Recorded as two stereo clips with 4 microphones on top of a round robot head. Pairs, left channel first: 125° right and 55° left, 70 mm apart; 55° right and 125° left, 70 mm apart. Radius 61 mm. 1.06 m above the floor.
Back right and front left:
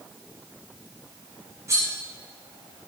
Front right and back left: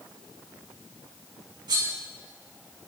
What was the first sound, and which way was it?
Cutlery clinking, 105° left.